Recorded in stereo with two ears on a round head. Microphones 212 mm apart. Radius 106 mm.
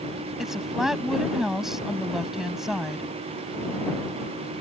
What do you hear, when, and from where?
0.4 s a woman speaking: centre (ahead or behind)